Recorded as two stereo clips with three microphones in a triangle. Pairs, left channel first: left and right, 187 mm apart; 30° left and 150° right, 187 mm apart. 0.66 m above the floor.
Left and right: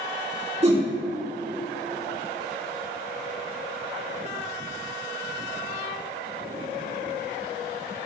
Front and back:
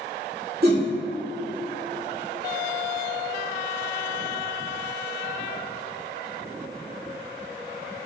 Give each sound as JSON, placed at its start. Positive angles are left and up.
{"t": 0.6, "sound": "a whoosh", "azimuth_deg": -135, "distance_m": 2.0}